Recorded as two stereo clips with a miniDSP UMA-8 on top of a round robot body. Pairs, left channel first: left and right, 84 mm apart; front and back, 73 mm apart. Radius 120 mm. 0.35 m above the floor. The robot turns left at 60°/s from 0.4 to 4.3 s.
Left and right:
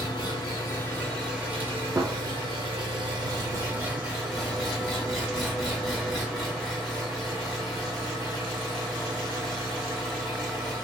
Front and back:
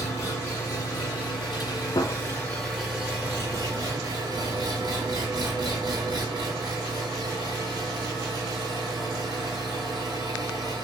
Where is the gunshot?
25° right, 0.6 m; by 2.2 s 40° right, 0.6 m.